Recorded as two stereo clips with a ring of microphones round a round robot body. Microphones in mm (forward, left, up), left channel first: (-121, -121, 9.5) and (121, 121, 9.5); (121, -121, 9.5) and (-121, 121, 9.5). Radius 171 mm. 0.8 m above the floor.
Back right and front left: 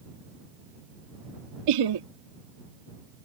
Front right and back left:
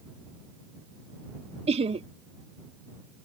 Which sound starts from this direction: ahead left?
Laughter, at 1.7 s.